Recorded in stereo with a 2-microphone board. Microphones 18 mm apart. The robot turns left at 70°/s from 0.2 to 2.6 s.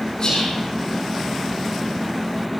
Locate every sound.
0.2 s whispering: 50° left (ahead or behind), 9 m; by 0.6 s 75° left (ahead or behind), 9 m